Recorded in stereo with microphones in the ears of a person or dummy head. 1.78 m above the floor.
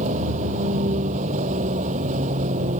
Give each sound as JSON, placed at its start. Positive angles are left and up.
{"t": 0.0, "sound": "a vehicle", "side_deg": -40}